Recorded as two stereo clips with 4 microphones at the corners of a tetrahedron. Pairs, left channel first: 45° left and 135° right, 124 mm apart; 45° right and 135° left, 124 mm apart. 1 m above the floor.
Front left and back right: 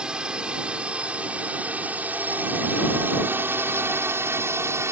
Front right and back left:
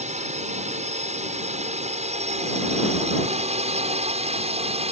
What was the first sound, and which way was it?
A drone, 145° left.